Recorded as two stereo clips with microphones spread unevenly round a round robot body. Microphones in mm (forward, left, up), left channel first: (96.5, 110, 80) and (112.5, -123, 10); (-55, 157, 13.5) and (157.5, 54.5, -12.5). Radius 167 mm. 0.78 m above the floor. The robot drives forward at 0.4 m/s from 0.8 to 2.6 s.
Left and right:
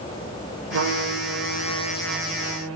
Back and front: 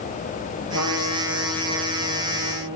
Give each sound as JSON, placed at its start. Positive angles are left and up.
{"t": 0.7, "sound": "a trumpet", "azimuth_deg": -70, "distance_m": 3.5}